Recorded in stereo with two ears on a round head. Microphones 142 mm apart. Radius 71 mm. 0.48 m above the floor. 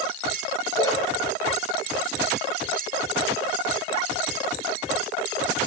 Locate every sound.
0.8 s a splash: 20° left (ahead or behind), 0.8 m